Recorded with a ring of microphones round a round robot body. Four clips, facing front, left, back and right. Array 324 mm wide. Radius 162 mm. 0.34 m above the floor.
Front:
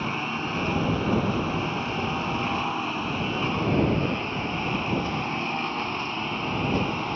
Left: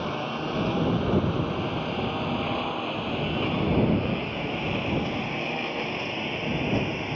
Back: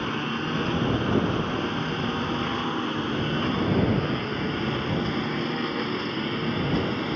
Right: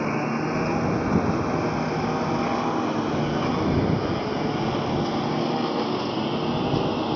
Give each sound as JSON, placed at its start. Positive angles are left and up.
{"t": 0.0, "sound": "a lawn mower", "azimuth_deg": -105}